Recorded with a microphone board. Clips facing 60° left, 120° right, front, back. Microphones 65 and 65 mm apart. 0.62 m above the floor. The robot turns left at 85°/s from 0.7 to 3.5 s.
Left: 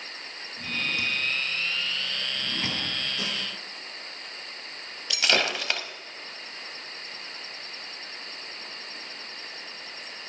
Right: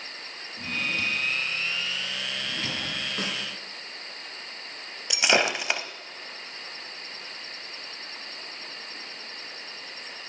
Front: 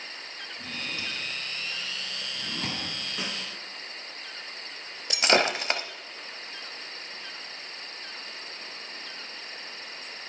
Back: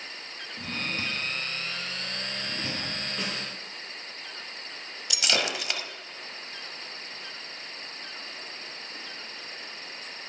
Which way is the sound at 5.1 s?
45° right.